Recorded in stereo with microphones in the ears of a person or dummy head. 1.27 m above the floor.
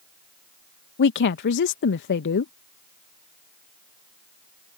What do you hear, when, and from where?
1.0 s a woman speaking: 55° left (ahead or behind)